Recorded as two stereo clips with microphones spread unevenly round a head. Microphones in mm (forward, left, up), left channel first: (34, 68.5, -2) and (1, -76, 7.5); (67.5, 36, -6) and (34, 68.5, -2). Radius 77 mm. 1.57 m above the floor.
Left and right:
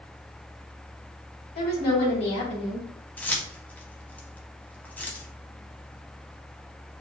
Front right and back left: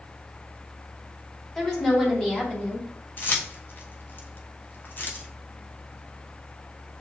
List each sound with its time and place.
1.6 s a woman speaking: 25° left, 2 m; by 2.9 s 20° left, 0.7 m
3.2 s keys jangling: 5° right, 0.9 m